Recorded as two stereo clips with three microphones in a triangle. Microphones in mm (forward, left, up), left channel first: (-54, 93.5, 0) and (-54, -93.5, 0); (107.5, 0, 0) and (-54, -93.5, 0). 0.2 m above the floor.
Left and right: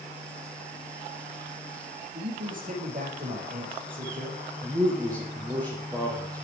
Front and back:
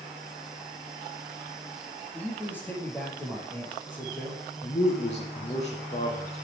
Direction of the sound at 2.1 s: 50° right.